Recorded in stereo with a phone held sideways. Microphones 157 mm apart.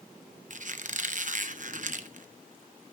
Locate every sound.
0.5 s a squeak: 60° right (ahead or behind), 0.8 m